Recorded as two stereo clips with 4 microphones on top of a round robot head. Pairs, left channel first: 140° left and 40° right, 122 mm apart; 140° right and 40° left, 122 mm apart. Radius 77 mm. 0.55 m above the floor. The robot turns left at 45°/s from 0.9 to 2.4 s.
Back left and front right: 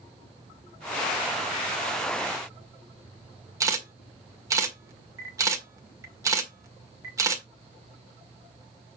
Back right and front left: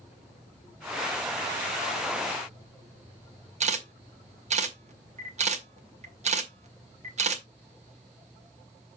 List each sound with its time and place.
3.6 s a camera shutter: 25° left, 1.8 m